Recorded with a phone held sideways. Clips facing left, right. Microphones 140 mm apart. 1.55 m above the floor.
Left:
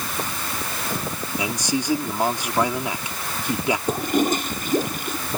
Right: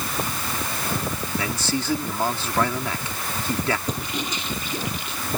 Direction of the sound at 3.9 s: 50° left (ahead or behind).